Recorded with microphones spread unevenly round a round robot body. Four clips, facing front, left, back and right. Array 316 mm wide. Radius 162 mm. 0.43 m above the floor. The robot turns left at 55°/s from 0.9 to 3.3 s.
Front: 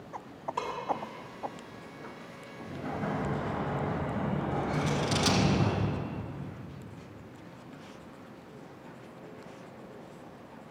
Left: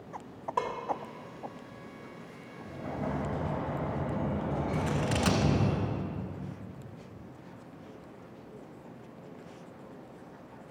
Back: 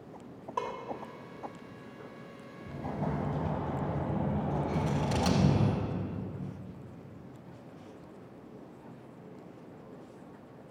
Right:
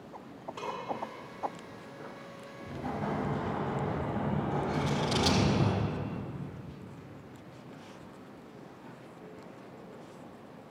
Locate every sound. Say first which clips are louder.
0.6 s dishes clattering: left 6 dB, back 1 dB; 100° left, 1.2 m
2.6 s an explosion: right 1 dB, front 1 dB; 160° right, 3 m; by 5.7 s 165° left, 3 m
4.7 s scissors: even, front 1 dB; 70° left, 1.3 m